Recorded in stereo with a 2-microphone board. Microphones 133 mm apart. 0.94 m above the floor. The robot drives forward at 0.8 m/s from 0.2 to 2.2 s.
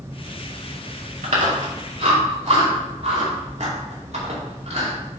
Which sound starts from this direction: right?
Chewing, at 1.2 s.